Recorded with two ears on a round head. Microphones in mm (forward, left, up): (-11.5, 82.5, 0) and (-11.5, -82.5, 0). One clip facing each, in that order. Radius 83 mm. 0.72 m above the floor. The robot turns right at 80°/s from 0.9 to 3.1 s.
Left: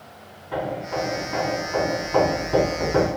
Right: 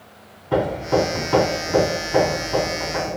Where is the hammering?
115° right, 2 m; by 3.2 s 60° left, 2 m.